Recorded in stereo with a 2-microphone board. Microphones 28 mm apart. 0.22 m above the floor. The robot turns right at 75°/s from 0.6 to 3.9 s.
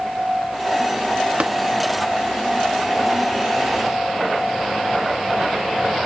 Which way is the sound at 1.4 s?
45° right (ahead or behind).